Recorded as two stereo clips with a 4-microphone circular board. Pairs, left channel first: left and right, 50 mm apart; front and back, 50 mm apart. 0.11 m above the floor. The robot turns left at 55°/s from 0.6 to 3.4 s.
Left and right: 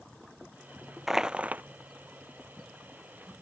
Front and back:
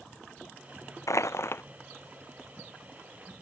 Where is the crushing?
5° right; by 1.6 s 35° right.